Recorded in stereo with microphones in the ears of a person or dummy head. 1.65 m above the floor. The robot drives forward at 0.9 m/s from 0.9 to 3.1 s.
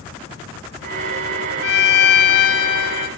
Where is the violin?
70° left (ahead or behind), 2.5 m; by 3.1 s 55° left (ahead or behind), 3 m.